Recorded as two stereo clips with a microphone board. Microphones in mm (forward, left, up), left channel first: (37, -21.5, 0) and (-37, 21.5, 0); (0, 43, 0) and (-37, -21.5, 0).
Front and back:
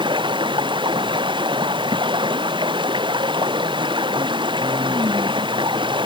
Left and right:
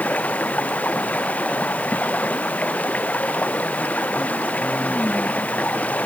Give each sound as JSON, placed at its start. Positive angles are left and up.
{"t": 0.0, "sound": "running water", "azimuth_deg": 130}